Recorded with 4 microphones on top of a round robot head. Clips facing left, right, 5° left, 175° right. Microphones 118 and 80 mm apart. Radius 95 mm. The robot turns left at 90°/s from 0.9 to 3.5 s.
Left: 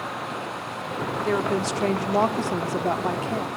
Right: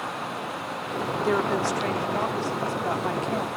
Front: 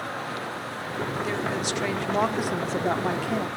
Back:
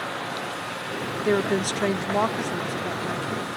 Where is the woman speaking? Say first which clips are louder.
Even, back 5 dB; 170° right, 1.1 m; by 3.5 s 10° right, 1.1 m.